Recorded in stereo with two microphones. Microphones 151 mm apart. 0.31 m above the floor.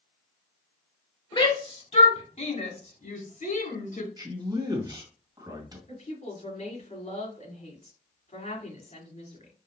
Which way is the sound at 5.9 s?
50° left (ahead or behind).